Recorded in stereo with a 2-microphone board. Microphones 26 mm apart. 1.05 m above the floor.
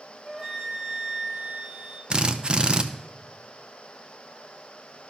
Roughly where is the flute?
Centre.